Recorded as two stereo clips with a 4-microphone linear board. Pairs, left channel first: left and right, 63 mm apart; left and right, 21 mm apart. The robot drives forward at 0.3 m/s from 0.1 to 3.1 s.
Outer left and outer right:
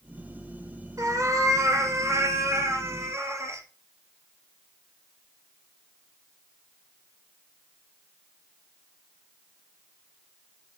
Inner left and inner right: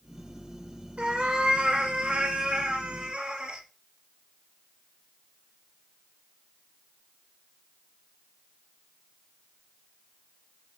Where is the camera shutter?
I don't hear a camera shutter.